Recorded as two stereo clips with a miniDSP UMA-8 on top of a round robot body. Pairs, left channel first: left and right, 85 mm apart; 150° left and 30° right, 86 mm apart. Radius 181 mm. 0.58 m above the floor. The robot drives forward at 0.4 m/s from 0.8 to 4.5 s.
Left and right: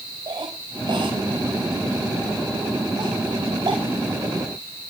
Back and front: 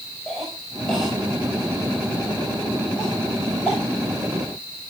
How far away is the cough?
About 5 m.